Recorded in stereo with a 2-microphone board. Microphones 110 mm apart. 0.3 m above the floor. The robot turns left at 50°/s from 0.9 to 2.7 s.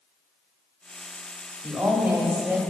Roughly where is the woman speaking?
Centre.